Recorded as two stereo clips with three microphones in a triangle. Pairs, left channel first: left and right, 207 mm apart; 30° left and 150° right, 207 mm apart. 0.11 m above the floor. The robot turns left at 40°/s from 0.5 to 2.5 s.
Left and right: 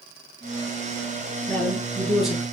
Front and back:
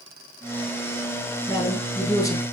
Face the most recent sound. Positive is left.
turn(degrees=-15)